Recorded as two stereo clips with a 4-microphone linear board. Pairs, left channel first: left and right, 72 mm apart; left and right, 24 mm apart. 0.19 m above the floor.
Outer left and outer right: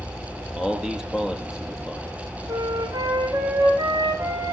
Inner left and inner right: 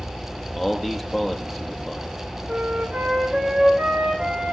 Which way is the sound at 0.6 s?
5° right (ahead or behind).